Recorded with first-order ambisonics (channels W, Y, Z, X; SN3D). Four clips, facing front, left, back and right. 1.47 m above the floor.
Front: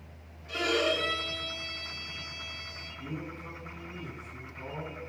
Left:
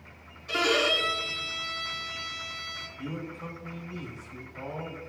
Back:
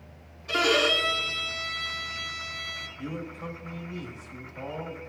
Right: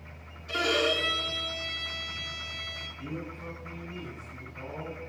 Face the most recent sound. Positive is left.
turn(degrees=155)